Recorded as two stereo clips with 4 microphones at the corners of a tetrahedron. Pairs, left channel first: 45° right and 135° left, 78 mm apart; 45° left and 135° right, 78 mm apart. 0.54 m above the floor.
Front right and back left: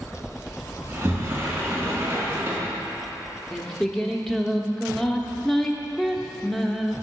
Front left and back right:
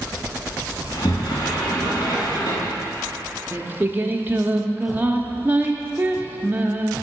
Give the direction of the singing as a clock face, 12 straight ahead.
4 o'clock.